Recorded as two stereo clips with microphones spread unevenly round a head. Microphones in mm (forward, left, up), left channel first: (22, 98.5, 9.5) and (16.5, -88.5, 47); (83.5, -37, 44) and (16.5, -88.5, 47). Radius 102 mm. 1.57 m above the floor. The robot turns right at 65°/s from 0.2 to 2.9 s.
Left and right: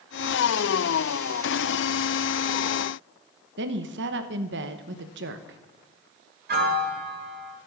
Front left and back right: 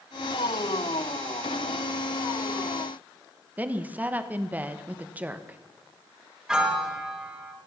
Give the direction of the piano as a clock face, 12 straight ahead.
2 o'clock.